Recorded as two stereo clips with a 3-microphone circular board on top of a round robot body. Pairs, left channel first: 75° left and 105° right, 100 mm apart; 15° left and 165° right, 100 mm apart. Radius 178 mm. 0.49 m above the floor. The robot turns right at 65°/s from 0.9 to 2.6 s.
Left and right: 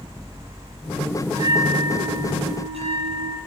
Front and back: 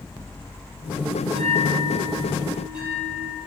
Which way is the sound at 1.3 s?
170° right.